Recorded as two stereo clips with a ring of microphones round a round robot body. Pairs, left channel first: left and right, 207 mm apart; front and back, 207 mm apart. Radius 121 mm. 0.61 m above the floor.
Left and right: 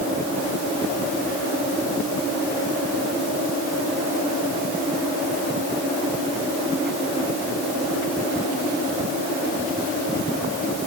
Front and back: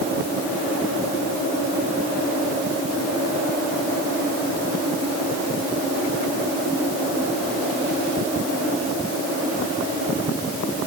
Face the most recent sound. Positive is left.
No sound to turn to.